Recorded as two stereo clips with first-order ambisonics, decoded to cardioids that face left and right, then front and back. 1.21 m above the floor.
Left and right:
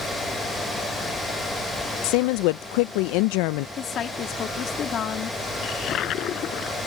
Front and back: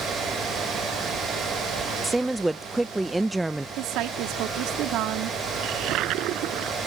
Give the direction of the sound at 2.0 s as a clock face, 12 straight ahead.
9 o'clock.